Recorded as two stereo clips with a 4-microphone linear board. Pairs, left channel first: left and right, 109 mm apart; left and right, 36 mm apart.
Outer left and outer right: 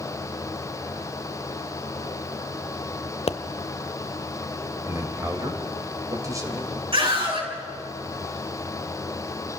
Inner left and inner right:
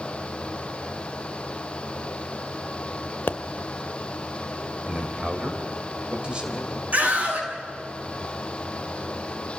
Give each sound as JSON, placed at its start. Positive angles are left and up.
{"t": 3.3, "sound": "a pop", "side_deg": 65, "distance_m": 0.7}
{"t": 4.8, "sound": "a man speaking", "side_deg": -30, "distance_m": 3.5}
{"t": 6.9, "sound": "a scream", "side_deg": -50, "distance_m": 8.0}